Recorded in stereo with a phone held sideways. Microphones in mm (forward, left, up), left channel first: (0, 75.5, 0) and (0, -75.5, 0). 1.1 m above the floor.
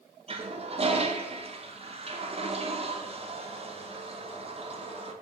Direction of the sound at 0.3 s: 40° right (ahead or behind).